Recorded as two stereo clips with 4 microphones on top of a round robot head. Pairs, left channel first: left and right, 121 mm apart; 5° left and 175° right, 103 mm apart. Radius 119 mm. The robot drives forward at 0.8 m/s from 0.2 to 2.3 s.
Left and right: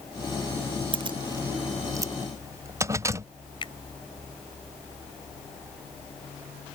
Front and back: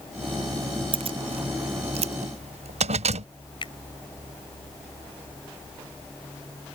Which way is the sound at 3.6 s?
45° left.